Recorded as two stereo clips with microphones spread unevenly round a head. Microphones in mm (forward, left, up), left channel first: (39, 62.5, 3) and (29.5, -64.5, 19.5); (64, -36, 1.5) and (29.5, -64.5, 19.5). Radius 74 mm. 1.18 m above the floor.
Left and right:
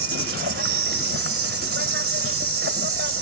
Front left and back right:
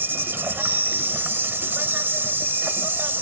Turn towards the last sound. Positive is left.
turn(degrees=-100)